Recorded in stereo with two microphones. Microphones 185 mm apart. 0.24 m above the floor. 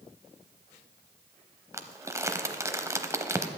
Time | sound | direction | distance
1.7 | crumpling | 15° right (ahead or behind) | 0.7 m